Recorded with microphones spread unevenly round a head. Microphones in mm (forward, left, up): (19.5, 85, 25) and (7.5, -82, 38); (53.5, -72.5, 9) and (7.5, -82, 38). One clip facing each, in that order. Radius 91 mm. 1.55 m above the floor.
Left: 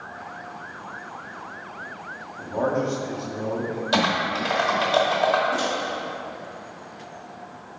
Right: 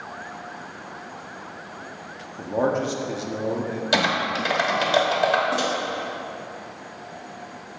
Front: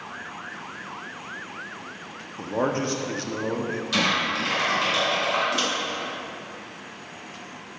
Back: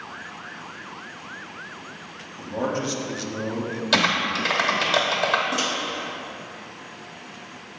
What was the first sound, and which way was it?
A man speaking, 40° right.